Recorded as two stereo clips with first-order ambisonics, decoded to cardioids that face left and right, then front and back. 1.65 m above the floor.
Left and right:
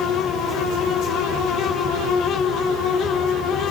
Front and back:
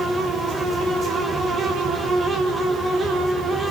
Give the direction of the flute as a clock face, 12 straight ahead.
No flute in this recording.